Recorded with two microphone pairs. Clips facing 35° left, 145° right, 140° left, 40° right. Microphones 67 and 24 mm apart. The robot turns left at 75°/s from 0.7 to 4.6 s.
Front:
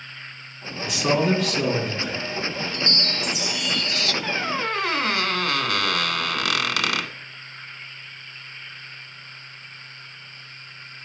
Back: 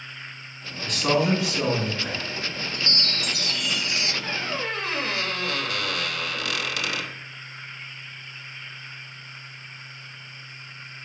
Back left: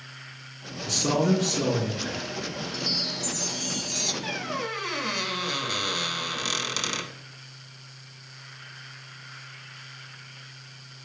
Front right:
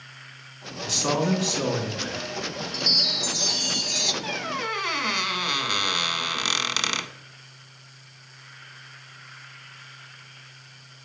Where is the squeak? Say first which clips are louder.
Front 4 dB, front right 2 dB; 45° left, 0.6 m; by 7.1 s 20° left, 0.6 m.